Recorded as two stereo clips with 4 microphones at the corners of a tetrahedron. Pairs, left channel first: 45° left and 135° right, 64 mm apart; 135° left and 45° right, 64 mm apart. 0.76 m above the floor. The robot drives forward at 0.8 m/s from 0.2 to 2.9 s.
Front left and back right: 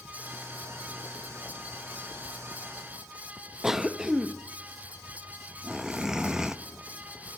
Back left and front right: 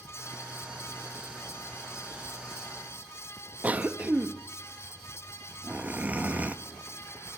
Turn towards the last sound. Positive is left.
turn(degrees=-65)